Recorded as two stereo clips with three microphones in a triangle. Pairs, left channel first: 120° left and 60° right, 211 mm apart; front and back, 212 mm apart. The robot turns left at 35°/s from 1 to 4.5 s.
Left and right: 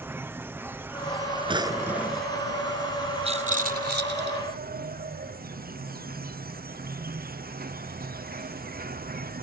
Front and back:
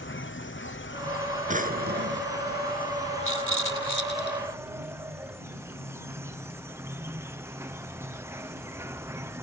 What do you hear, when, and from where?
0.0 s an insect: 20° left; by 9.4 s 105° right
1.5 s a drawer: 125° right; by 2.3 s 155° right
3.2 s a rattle: straight ahead; by 4.4 s 40° right